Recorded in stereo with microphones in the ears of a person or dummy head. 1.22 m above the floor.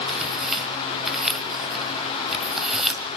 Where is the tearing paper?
Centre (ahead or behind), 1.8 m.